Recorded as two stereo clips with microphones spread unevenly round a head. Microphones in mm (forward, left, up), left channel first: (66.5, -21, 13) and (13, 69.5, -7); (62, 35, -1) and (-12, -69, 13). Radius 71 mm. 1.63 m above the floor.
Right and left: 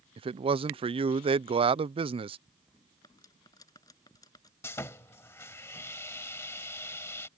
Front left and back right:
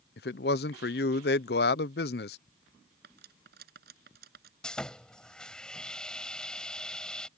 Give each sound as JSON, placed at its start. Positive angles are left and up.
{"t": 0.2, "sound": "a man speaking", "azimuth_deg": 80}
{"t": 3.0, "sound": "cutlery clinking", "azimuth_deg": -125}
{"t": 4.6, "sound": "sawing", "azimuth_deg": -35}